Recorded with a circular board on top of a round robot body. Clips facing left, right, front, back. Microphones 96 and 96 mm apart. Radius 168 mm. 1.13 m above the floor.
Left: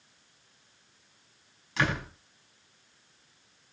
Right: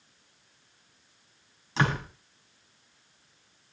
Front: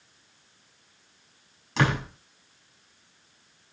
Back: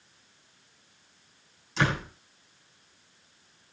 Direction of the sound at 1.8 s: 25° right.